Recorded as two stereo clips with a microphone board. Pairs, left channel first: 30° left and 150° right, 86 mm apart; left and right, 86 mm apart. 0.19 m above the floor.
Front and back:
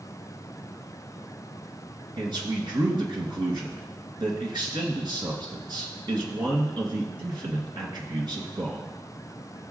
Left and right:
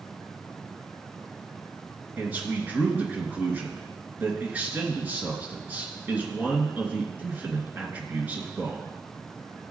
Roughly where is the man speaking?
Behind right.